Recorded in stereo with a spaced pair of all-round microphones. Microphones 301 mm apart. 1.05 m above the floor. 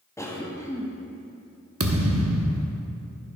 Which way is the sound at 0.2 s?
10° left (ahead or behind).